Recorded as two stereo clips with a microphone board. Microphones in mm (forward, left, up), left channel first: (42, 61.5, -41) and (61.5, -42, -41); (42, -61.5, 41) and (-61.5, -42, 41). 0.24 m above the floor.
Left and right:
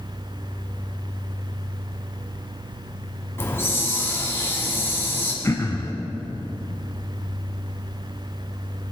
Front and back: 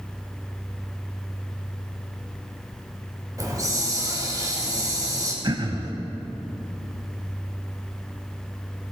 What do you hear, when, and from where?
3.4 s a hiss: 150° left, 1.8 m
5.4 s throat clearing: 150° left, 0.7 m